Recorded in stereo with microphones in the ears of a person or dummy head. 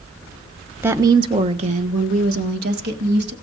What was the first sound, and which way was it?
A woman speaking, 15° right (ahead or behind).